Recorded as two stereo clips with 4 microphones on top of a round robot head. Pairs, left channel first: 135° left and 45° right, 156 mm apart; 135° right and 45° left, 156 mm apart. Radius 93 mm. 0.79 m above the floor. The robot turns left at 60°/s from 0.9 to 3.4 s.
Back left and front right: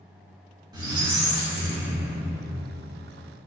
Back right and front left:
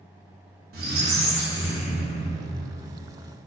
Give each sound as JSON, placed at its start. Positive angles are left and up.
{"t": 0.7, "sound": "a squeak", "azimuth_deg": 15, "distance_m": 0.5}